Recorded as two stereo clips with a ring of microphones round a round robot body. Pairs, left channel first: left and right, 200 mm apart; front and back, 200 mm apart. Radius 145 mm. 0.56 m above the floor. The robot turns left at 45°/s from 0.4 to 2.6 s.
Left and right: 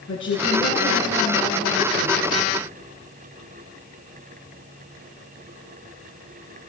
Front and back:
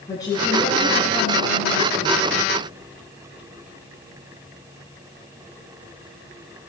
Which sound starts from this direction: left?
A woman speaking, at 0.1 s.